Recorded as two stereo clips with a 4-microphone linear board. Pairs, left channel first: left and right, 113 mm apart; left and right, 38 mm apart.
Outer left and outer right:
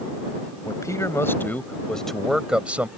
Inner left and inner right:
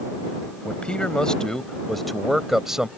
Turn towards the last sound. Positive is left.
turn(degrees=-15)  # may be behind; listen again after turning